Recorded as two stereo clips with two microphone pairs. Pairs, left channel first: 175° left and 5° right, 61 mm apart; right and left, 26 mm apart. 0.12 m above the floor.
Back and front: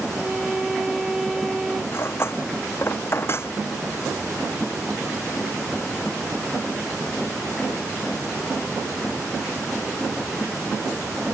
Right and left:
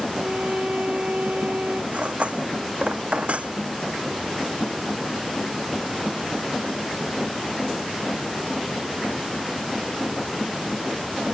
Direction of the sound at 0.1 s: 80° left.